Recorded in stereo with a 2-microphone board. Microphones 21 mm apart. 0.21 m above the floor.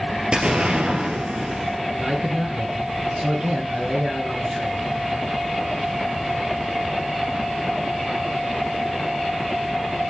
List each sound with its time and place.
0.3 s an explosion: 75° right (ahead or behind), 2 m
1.9 s a man speaking: 65° right (ahead or behind), 3 m